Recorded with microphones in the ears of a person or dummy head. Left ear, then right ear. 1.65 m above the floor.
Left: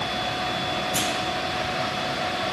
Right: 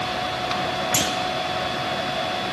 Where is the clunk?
55° right (ahead or behind), 0.9 m.